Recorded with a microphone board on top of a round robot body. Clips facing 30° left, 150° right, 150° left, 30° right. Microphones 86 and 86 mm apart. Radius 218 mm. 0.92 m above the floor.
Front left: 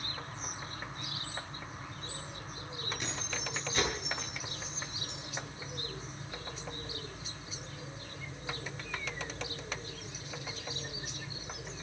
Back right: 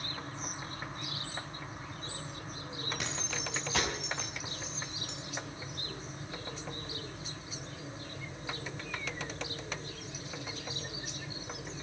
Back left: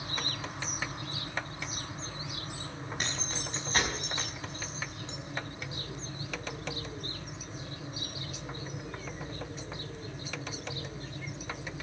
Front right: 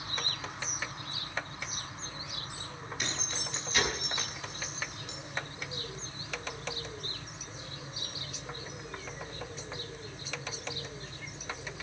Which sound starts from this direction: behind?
Keys jangling, at 3.0 s.